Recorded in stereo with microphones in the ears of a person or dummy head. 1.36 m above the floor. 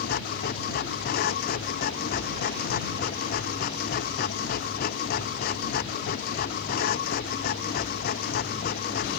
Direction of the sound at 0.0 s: 55° left (ahead or behind).